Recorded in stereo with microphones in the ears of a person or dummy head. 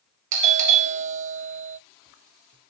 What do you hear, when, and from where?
0.3 s a doorbell: 40° right (ahead or behind), 0.7 m